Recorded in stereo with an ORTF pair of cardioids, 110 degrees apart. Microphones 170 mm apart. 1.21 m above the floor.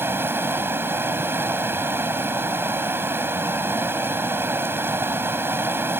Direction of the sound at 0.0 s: 15° right.